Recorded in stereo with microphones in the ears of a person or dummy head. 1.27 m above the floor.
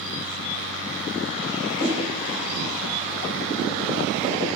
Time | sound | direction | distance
1.8 | a whoosh | 10° right (ahead or behind) | 1.6 m